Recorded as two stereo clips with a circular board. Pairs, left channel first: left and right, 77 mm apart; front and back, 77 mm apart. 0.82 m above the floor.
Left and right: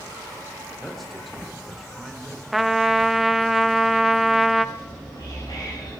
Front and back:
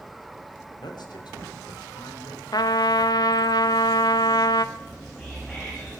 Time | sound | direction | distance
0.8 | a man speaking | straight ahead | 3 m
2.5 | a trumpet | straight ahead | 0.6 m
4.8 | whispering | 85° left | 3 m